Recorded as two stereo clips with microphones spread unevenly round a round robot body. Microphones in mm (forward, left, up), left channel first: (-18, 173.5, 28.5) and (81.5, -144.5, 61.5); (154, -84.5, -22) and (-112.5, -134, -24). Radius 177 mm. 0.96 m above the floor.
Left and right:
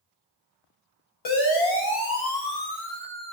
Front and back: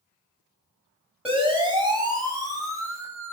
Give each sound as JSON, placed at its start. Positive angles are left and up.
{"t": 1.2, "sound": "a siren", "azimuth_deg": 105, "distance_m": 7.0}